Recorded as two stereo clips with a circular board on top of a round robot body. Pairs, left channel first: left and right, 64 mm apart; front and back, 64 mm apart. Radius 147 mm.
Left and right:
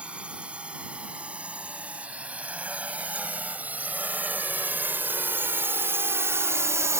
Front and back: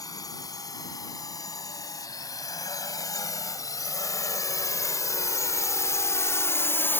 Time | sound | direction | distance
0.0 | a drone | 20° right | ?